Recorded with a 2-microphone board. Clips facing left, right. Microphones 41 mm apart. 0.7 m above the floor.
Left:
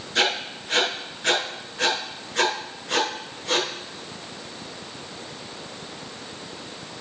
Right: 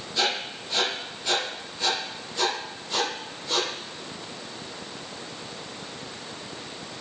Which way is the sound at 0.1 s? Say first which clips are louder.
Left 4 dB; 85° left.